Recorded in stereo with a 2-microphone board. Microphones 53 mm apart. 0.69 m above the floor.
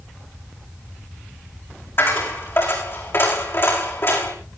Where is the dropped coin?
50° left (ahead or behind), 7 m.